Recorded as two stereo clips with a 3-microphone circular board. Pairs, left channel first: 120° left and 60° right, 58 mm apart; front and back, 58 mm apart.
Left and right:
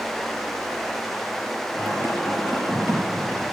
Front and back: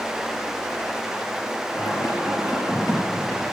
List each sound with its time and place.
1.7 s singing: 10° right, 4.5 m